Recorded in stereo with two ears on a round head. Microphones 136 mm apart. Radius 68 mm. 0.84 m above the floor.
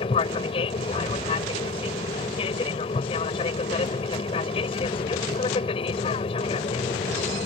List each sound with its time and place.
0.0 s an aircraft: 35° left (ahead or behind)